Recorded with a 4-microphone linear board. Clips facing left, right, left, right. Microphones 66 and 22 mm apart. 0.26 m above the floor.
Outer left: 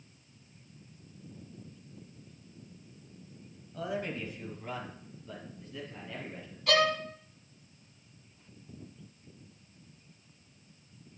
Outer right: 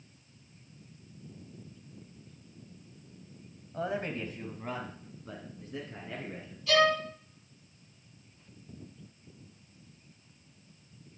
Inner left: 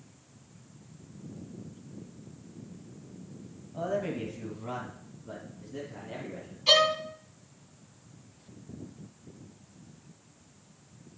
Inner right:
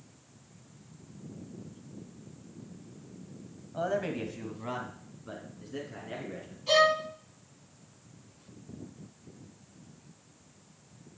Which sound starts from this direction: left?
A violin, at 6.7 s.